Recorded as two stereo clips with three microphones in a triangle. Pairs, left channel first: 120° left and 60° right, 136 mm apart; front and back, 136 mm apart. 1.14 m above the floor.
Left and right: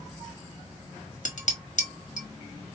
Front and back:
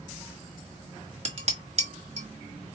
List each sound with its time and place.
1.2 s dishes clattering: 145° left, 1.2 m